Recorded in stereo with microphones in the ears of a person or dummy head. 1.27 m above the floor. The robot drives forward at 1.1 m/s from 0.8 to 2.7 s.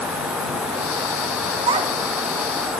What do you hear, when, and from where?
1.7 s a child speaking: 35° right (ahead or behind), 0.8 m; by 2.7 s 15° right (ahead or behind), 1.8 m